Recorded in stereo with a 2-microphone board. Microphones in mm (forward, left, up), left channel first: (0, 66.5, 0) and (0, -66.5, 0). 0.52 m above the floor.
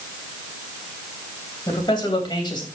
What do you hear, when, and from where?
1.7 s a man speaking: 35° left (ahead or behind), 3 m